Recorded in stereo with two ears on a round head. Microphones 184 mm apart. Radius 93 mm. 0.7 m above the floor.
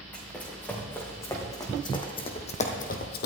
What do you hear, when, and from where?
0.1 s running footsteps: 5° left (ahead or behind), 4 m; by 3.3 s 55° left (ahead or behind), 1.5 m